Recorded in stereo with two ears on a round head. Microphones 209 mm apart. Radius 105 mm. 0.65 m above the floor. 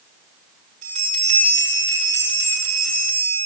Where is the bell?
30° right (ahead or behind), 6 m.